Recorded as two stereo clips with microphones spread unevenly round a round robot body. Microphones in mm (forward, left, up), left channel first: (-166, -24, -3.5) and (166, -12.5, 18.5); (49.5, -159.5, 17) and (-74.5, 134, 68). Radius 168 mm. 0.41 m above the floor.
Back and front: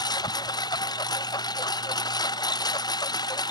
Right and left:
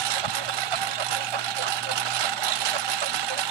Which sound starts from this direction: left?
A lawn mower, at 0.0 s.